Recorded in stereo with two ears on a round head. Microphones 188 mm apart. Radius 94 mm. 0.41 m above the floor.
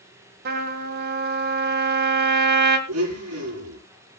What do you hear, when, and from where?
0.5 s a trumpet: 50° right (ahead or behind), 2 m
2.9 s a blender: 85° right, 7 m